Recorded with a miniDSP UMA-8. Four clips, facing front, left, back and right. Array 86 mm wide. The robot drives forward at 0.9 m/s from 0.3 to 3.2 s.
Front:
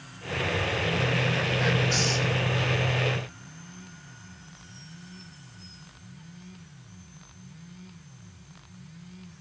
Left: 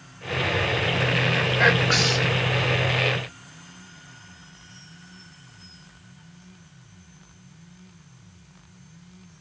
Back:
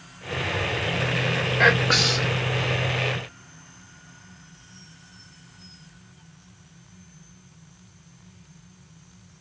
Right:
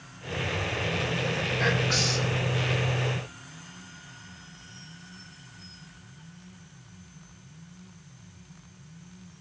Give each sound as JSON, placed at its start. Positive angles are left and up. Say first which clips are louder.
{"t": 1.6, "sound": "whispering", "louder": "left 7 dB, back 10 dB", "azimuth_deg": 145, "distance_m": 1.7}